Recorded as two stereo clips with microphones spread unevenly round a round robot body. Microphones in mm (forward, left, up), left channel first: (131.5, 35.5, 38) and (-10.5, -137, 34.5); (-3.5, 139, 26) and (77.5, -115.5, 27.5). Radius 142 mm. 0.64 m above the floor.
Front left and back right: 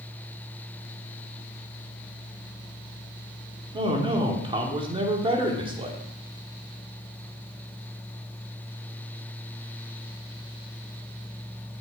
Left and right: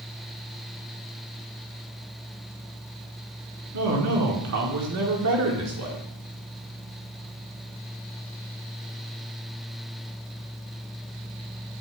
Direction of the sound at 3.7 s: 65° right.